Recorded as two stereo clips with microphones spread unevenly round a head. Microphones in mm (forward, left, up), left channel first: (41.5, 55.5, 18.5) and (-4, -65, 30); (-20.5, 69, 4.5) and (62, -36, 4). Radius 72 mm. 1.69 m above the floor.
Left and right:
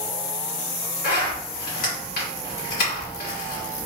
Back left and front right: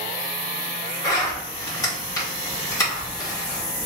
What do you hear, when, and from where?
1.0 s a zipper: 65° left, 2.5 m